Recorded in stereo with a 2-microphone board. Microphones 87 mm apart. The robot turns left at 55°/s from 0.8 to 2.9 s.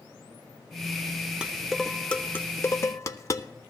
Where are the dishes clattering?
10° right (ahead or behind), 0.6 m; by 3.5 s 35° left (ahead or behind), 0.6 m.